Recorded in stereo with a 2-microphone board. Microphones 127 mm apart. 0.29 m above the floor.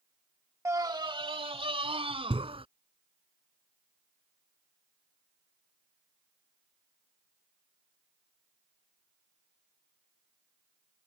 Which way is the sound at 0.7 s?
20° right (ahead or behind).